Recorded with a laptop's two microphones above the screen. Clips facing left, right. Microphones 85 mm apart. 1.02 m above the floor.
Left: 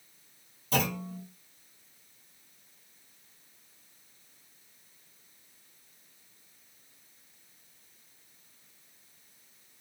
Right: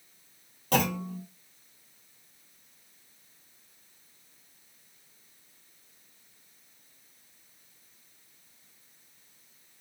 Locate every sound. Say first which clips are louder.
0.7 s a clunk: right 3 dB; 65° right (ahead or behind), 1.1 m